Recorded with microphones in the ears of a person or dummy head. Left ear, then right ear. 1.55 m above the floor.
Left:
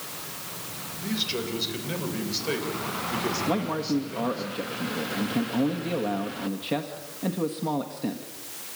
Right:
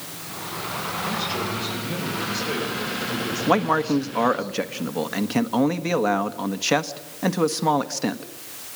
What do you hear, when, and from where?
1.0 s a man speaking: 70° left (ahead or behind), 7.5 m; by 4.5 s 90° left, 7 m
3.5 s a man speaking: 45° right (ahead or behind), 1.6 m